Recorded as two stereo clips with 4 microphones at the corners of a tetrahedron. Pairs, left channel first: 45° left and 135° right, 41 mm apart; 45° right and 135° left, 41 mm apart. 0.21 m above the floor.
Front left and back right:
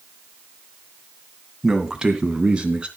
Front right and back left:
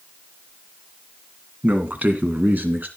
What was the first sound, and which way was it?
A man speaking, 150° left.